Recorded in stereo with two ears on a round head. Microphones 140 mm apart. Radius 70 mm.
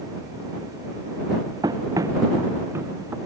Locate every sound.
1.6 s running footsteps: 25° right (ahead or behind); by 3.2 s 15° right (ahead or behind)